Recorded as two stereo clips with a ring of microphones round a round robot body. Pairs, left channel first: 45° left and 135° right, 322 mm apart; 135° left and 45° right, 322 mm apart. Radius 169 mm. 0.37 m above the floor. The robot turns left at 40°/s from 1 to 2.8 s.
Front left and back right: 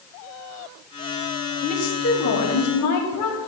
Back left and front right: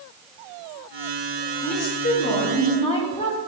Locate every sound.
1.6 s a woman speaking: 115° left, 1.9 m; by 3.4 s 65° left, 1.9 m